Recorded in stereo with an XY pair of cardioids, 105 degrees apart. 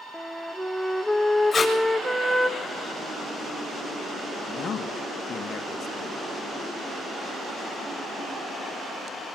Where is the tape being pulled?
30° left, 8 m.